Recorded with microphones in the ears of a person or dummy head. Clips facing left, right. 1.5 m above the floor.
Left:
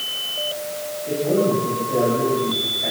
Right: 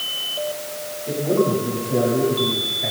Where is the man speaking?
5° right (ahead or behind), 9 m; by 2.9 s 10° right (ahead or behind), 9.5 m.